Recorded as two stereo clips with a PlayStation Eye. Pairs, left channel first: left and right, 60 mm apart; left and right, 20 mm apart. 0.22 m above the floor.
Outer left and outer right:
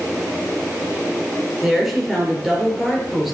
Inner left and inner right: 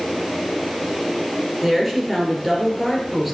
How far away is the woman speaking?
About 4.5 m.